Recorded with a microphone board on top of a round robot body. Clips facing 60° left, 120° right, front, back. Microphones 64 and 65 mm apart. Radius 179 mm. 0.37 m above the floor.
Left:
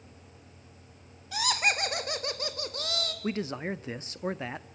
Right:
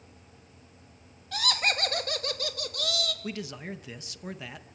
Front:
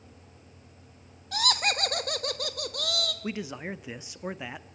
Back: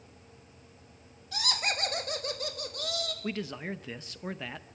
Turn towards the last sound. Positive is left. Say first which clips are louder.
# left 5 dB, front 1 dB
turn(degrees=65)